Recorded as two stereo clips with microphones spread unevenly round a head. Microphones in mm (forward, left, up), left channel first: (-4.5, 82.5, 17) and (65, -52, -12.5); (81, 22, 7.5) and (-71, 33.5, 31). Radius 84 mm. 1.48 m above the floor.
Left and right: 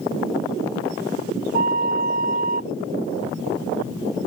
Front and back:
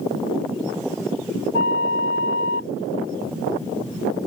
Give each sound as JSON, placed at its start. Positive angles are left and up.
{"t": 1.5, "sound": "a flute", "azimuth_deg": -30}